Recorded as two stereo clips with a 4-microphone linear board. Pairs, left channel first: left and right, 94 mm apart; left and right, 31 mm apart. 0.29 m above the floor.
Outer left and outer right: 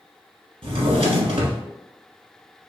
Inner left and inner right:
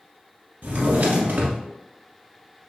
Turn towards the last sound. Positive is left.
turn(degrees=-80)